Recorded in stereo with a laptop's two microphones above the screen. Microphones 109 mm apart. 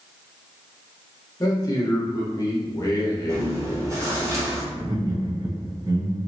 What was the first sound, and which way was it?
A man speaking, 35° left (ahead or behind).